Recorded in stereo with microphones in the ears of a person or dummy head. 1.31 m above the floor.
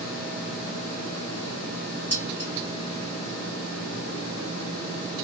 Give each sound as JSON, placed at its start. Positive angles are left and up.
{"t": 2.1, "sound": "dishes clattering", "side_deg": 10, "distance_m": 1.4}